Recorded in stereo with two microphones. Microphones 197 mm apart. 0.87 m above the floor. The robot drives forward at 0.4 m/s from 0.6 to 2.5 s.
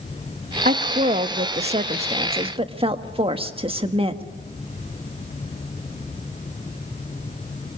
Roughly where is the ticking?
No ticking in this recording.